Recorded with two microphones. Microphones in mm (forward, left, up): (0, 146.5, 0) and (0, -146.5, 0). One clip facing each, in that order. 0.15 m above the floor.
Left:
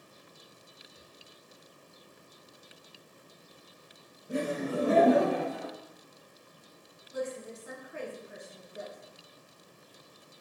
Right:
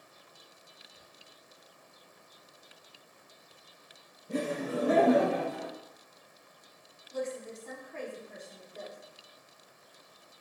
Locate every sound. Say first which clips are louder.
4.3 s laughter: left 1 dB; 10° left (ahead or behind), 1.2 m; by 5.7 s 45° left (ahead or behind), 1.9 m
7.1 s a woman speaking: even; 10° left (ahead or behind), 1.0 m